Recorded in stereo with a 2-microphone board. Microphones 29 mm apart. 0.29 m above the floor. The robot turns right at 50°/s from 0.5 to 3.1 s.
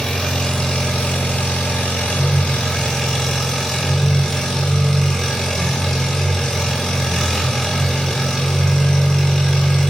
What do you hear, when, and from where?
0.0 s an engine running: 30° left, 1.3 m; by 9.9 s 160° left, 1.3 m